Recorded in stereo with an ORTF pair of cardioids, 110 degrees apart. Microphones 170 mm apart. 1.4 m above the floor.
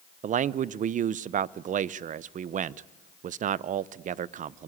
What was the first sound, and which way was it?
A man speaking, 45° right.